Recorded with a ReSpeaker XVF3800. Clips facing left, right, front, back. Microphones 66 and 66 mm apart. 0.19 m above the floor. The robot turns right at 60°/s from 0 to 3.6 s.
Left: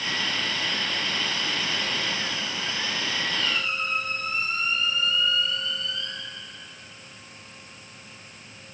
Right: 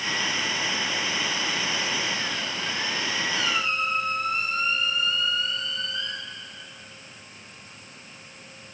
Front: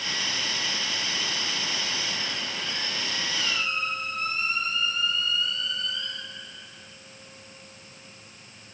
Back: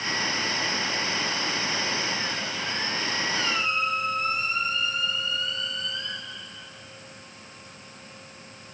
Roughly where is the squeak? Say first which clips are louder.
Right 2 dB, back 2 dB; behind right.